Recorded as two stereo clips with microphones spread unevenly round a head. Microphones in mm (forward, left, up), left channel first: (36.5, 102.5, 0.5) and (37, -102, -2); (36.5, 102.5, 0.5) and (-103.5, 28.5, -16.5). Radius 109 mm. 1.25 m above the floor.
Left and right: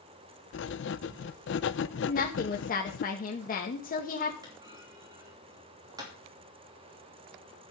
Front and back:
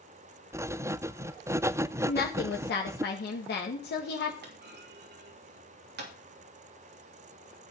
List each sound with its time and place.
0.5 s writing: 130° left, 0.5 m
2.1 s a woman speaking: 40° left, 1.9 m
4.4 s a clunk: 165° right, 3 m